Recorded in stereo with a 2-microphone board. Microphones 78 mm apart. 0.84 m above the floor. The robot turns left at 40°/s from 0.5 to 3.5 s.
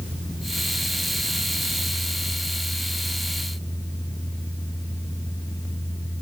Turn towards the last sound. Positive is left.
No sound to turn to.